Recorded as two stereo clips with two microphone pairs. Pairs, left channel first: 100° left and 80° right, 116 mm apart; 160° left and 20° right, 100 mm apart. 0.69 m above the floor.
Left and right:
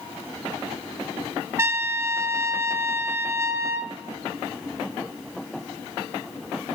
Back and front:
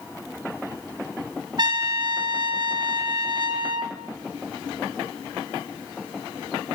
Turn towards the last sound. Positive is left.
turn(degrees=-25)